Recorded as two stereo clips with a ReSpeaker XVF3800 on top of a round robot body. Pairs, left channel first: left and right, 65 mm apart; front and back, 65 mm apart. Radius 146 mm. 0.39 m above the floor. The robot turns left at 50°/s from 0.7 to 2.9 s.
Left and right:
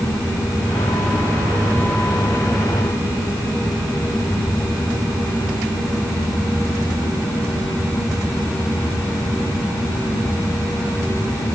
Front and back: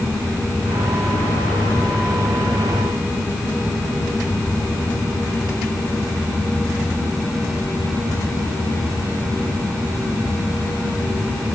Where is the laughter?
No laughter in this recording.